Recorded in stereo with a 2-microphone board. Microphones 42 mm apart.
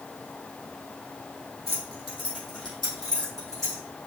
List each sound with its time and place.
1.7 s keys jangling: 10° left (ahead or behind), 1.7 m